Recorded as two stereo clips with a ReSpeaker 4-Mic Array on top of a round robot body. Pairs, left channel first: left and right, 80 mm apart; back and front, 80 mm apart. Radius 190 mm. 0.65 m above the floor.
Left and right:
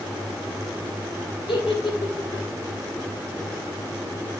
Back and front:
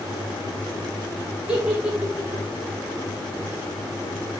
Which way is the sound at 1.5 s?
75° left.